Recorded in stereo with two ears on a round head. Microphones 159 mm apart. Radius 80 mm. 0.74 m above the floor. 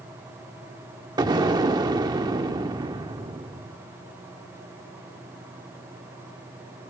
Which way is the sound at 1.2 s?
25° right (ahead or behind).